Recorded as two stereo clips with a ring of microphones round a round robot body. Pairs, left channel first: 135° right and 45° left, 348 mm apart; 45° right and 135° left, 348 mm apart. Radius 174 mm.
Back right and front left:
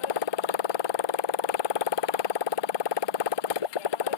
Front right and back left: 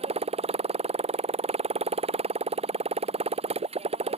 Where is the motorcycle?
150° right.